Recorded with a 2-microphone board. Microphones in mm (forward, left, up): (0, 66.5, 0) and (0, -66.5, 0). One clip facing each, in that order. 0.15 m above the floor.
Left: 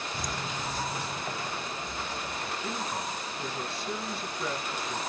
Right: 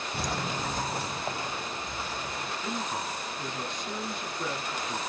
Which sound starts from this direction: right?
Footsteps, at 0.1 s.